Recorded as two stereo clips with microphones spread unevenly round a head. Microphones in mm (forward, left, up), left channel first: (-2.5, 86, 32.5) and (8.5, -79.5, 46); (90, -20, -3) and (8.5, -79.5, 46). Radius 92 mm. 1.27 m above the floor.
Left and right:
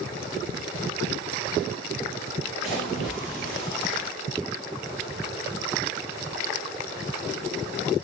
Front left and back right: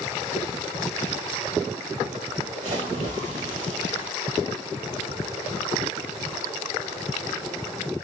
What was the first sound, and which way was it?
A splash, 175° right.